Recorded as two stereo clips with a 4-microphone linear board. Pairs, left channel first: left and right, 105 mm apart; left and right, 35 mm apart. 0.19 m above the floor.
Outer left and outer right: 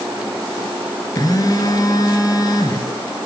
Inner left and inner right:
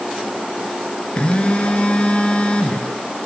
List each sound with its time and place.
1.2 s a phone buzzing: 40° left (ahead or behind), 3 m